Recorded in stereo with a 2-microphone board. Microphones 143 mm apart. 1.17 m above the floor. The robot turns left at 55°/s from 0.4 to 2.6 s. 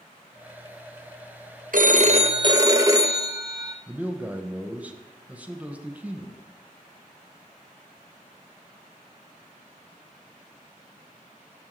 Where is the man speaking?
10° right (ahead or behind), 1.1 m.